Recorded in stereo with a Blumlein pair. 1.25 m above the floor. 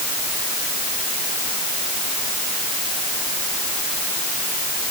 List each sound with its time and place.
Only background noise.